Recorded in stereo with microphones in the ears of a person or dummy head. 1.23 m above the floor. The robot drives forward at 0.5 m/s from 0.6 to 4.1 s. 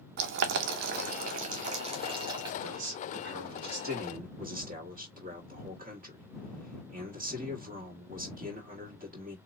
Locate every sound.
0.2 s boiling: 55° right (ahead or behind), 0.6 m; by 2.5 s 25° right (ahead or behind), 1.2 m
2.6 s a man speaking: 60° right (ahead or behind), 1.3 m; by 9.4 s 40° right (ahead or behind), 1.7 m